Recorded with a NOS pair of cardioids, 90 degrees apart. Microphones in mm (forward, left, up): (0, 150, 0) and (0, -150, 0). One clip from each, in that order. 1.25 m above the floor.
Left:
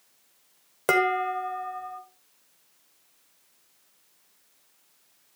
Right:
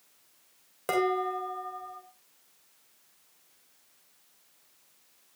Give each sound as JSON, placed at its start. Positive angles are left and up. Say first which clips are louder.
{"t": 0.9, "sound": "dishes clattering", "louder": "left 5 dB", "azimuth_deg": 60, "distance_m": 3.0}